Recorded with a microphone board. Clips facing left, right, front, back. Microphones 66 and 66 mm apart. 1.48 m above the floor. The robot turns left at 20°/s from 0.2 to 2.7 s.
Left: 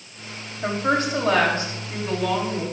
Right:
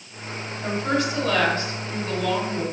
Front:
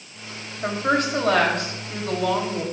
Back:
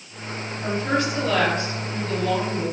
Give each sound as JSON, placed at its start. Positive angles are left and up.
{"t": 0.6, "sound": "a woman speaking", "azimuth_deg": 50, "distance_m": 2.5}